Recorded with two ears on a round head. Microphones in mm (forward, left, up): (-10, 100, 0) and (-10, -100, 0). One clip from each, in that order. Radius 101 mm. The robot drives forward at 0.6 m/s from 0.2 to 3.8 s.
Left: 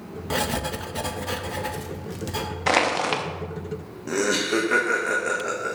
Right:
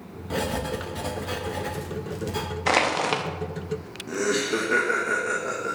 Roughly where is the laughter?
Left.